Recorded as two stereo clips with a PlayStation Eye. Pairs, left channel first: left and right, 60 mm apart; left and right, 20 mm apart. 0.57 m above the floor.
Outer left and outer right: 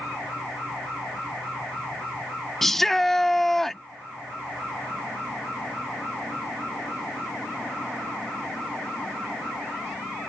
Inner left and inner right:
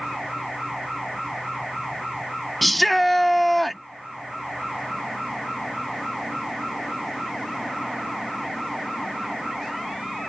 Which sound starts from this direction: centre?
A shout, at 2.6 s.